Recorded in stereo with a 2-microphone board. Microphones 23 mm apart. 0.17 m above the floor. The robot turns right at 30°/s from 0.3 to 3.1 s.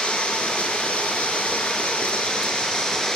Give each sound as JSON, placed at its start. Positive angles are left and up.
{"t": 0.0, "sound": "running water", "azimuth_deg": 55, "distance_m": 2.5}